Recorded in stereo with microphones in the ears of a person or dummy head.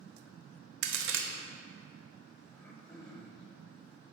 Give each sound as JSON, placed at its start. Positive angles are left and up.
{"t": 0.8, "sound": "a crack", "side_deg": -65, "distance_m": 0.7}
{"t": 2.5, "sound": "throat clearing", "side_deg": 0, "distance_m": 0.7}